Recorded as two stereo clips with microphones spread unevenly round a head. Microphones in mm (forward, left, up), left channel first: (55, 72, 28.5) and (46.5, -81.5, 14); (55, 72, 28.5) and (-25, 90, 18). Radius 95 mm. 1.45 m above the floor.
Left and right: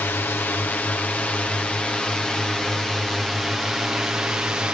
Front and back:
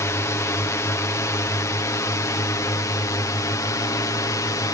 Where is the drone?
15° left; by 4.7 s 15° right.